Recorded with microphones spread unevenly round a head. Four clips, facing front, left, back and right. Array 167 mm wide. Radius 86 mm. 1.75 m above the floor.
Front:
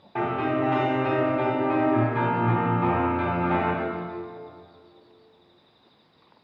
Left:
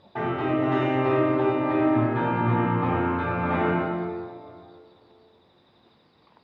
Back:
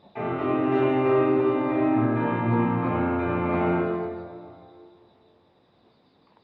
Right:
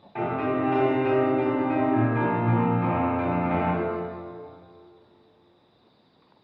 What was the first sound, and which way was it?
A piano, 10° left.